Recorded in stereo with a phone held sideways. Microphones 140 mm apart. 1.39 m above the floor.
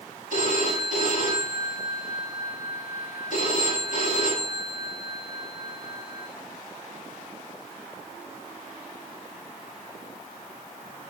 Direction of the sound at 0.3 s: 65° left (ahead or behind).